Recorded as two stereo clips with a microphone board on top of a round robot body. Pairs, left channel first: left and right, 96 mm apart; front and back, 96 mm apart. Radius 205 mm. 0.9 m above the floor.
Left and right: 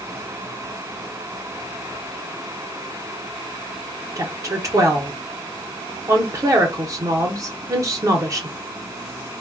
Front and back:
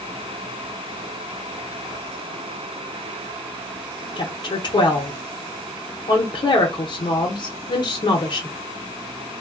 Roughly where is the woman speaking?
Ahead right.